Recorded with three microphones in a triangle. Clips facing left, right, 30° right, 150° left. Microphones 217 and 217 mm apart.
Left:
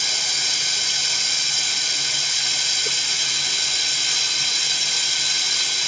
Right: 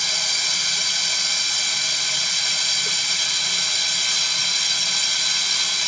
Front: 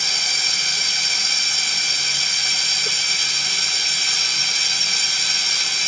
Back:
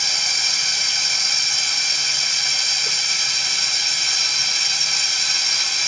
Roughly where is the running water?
Ahead left.